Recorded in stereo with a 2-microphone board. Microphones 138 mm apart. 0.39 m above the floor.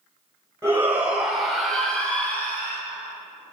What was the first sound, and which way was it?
A shout, 20° right (ahead or behind).